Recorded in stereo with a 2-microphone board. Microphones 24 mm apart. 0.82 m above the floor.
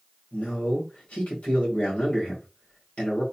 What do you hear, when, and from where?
0.3 s a man speaking: 75° left (ahead or behind), 2.5 m